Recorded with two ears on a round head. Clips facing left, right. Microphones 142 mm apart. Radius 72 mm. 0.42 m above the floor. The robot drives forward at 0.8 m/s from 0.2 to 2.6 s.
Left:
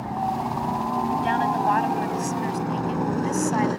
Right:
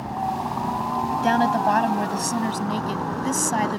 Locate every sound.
0.0 s a helicopter: 5° left (ahead or behind); by 3.8 s 20° left (ahead or behind)
1.2 s a woman speaking: 50° right (ahead or behind); by 3.8 s 40° right (ahead or behind)